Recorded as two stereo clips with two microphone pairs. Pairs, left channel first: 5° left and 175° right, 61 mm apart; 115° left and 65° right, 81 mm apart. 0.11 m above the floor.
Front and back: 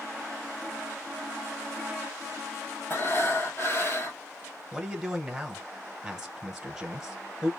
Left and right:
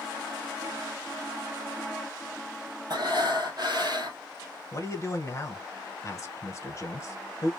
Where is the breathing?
40° right, 1.0 m.